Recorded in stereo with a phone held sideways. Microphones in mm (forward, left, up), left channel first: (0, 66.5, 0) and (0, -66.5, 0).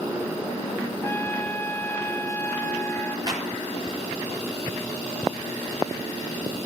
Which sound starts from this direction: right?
A clap, at 3.3 s.